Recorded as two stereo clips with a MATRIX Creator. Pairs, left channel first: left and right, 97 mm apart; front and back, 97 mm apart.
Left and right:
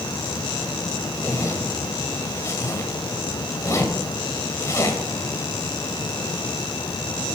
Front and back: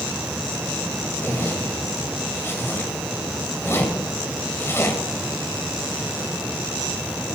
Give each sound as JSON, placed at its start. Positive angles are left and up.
{"t": 1.2, "sound": "a zipper", "azimuth_deg": 50, "distance_m": 1.8}